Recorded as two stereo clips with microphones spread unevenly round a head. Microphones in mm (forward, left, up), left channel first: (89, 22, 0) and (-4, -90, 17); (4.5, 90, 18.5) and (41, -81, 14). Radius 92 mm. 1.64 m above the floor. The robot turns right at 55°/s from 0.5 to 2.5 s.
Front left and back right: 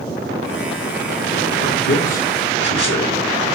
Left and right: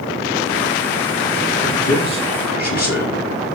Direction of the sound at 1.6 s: 15° left.